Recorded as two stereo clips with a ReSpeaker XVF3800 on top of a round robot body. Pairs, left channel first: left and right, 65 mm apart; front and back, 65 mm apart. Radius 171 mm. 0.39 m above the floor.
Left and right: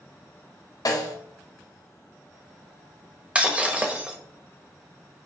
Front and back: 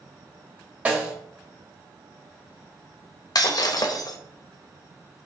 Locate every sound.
0.8 s a snare drum: 110° left, 1.8 m
3.4 s breaking glass: 20° right, 1.2 m